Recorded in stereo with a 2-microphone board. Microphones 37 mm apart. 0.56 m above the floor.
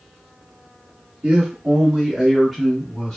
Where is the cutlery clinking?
No cutlery clinking in this recording.